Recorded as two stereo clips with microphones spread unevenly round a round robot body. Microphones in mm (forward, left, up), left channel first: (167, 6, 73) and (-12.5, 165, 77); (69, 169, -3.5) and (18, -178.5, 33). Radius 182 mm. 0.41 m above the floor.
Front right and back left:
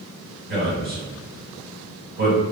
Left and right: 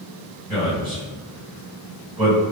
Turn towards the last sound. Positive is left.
turn(degrees=-175)